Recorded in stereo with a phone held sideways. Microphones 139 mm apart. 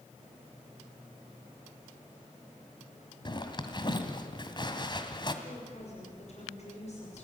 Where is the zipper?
35° left (ahead or behind), 1.9 m.